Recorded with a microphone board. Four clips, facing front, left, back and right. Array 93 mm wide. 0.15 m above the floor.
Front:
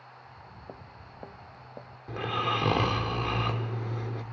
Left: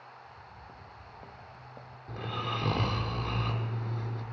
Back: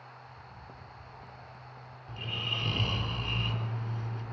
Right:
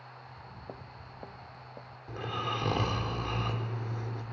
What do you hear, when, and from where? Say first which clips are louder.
0.2 s footsteps: right 1 dB, front 1 dB; 70° right, 1.5 m; by 2.0 s 5° right, 1.7 m
2.1 s snoring: right 1 dB, front 10 dB; 10° right, 3.5 m